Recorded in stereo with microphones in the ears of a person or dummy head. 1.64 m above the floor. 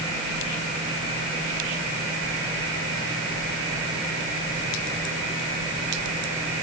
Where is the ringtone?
I don't hear a ringtone.